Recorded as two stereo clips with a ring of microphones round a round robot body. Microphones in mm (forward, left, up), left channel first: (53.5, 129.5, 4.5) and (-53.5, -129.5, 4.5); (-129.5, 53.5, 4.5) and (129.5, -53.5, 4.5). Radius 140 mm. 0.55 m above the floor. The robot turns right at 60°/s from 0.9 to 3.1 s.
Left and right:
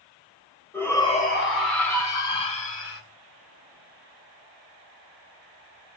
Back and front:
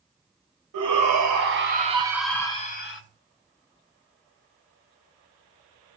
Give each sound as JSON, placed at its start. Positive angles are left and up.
{"t": 0.7, "sound": "a shout", "azimuth_deg": -15, "distance_m": 3.0}